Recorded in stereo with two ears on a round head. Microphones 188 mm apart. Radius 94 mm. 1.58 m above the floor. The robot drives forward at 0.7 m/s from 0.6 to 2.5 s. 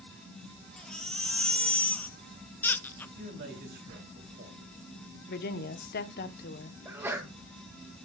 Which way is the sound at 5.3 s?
50° left (ahead or behind).